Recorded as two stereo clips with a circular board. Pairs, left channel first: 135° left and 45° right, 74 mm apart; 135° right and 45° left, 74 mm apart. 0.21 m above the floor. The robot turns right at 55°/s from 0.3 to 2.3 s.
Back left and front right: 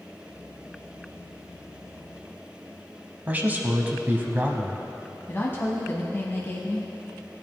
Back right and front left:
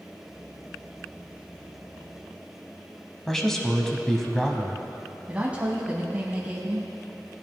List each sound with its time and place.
3.3 s a man speaking: 55° right, 1.1 m
5.3 s a woman speaking: 105° left, 1.2 m